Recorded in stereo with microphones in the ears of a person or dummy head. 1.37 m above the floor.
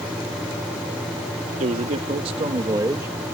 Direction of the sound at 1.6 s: 40° right (ahead or behind).